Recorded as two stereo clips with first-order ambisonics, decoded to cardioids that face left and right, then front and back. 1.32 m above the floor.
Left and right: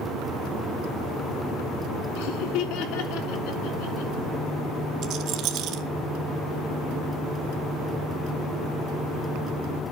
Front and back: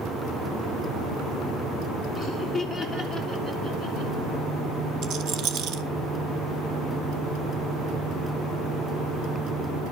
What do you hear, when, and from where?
2.2 s laughter: 85° left, 2.5 m; by 4.1 s 100° left, 4.5 m
5.0 s a rattle: 135° right, 1.4 m